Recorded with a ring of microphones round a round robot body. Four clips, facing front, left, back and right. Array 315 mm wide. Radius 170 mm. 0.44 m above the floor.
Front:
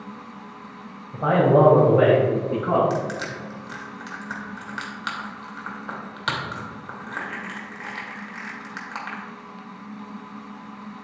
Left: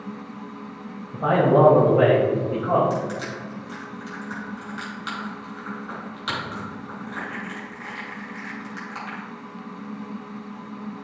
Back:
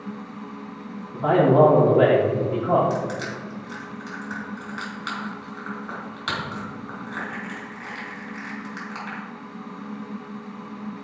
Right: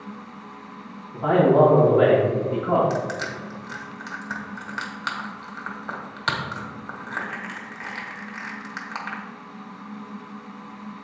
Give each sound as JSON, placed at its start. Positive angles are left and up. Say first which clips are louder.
{"t": 1.1, "sound": "a man speaking", "louder": "right 1 dB, even", "azimuth_deg": 35, "distance_m": 2.0}
{"t": 2.9, "sound": "crushing", "louder": "even, even", "azimuth_deg": -50, "distance_m": 2.5}